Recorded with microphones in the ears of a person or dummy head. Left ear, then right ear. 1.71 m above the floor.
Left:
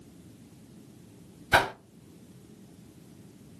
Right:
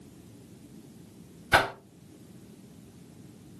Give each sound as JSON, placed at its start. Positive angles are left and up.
{"t": 1.5, "sound": "a whoosh", "side_deg": 0, "distance_m": 0.6}